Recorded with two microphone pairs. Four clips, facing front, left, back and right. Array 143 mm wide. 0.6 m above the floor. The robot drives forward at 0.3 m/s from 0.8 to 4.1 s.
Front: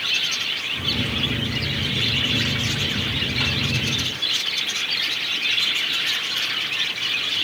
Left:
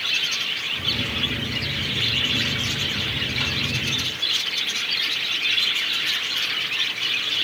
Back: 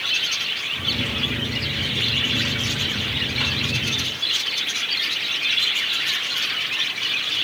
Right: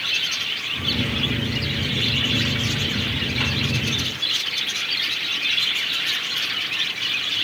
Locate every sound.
Only background noise.